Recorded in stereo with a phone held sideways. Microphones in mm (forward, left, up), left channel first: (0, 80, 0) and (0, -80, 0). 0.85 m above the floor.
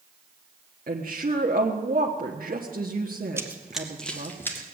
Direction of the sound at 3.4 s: 15° right (ahead or behind).